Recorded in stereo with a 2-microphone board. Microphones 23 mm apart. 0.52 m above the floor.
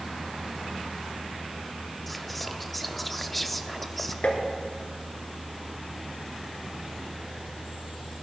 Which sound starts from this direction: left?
Tapping, at 4.2 s.